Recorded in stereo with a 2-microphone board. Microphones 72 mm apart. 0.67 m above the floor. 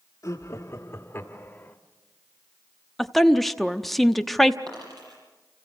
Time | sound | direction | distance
0.2 | laughter | 45° left (ahead or behind) | 1.5 m
3.0 | a woman speaking | centre (ahead or behind) | 0.8 m
4.7 | a dropped coin | 65° right (ahead or behind) | 7.5 m